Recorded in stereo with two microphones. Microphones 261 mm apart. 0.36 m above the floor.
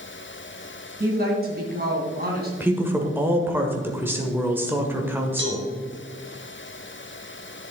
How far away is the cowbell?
About 1.8 m.